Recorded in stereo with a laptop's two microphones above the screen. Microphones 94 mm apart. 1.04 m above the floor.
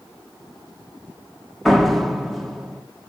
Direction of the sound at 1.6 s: Centre (ahead or behind).